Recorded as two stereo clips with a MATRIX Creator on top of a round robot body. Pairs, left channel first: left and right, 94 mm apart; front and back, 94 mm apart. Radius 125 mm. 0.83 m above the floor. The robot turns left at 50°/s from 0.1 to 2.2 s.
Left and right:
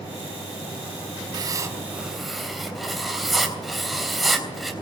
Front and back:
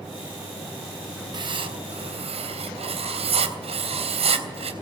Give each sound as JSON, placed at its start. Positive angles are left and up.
{"t": 1.3, "sound": "writing", "azimuth_deg": -135, "distance_m": 3.0}